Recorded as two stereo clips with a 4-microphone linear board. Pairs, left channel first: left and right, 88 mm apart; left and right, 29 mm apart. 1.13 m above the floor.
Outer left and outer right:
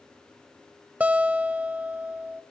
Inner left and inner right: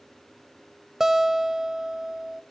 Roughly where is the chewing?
I don't hear chewing.